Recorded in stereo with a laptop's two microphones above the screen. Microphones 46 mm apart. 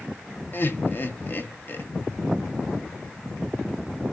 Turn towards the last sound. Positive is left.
turn(degrees=45)  # may be behind; listen again after turning